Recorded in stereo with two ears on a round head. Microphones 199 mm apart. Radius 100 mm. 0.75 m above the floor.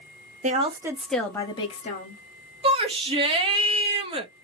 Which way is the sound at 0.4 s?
35° right (ahead or behind).